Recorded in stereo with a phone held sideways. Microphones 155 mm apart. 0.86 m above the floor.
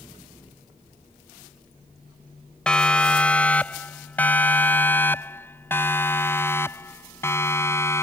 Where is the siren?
5° left (ahead or behind); by 8.0 s 15° left (ahead or behind).